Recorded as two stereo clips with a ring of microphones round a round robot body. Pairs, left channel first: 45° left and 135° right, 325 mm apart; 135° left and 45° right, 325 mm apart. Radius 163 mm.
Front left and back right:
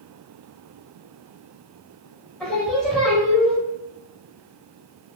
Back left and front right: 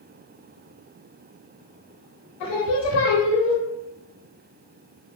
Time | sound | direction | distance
2.4 | singing | 130° left | 0.8 m